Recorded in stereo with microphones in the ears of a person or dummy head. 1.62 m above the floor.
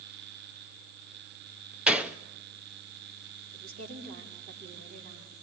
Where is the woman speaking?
50° right (ahead or behind), 4.5 m.